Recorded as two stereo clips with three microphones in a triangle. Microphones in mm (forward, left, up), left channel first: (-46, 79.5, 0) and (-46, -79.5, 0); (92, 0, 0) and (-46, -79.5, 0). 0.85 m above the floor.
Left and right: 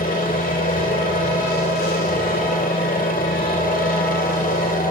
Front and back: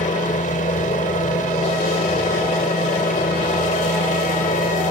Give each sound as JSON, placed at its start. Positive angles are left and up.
{"t": 0.0, "sound": "a helicopter", "azimuth_deg": 65}